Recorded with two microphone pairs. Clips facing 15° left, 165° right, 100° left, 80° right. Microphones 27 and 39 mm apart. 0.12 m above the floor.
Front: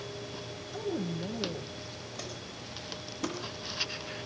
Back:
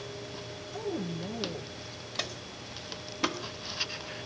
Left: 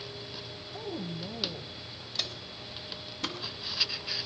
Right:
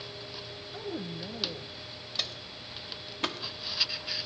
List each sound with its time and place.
0.7 s a woman speaking: 50° right, 1.7 m
2.1 s footsteps: 160° right, 2 m; by 3.4 s 125° right, 1.9 m